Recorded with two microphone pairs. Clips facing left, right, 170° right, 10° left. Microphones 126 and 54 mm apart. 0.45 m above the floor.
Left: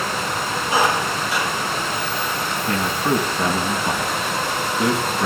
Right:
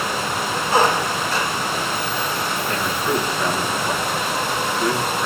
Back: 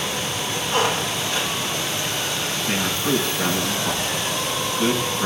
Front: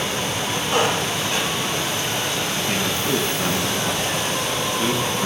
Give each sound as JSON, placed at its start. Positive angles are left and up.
{"t": 0.7, "sound": "a squeak", "azimuth_deg": 10, "distance_m": 3.5}
{"t": 2.7, "sound": "a man speaking", "azimuth_deg": 110, "distance_m": 3.5}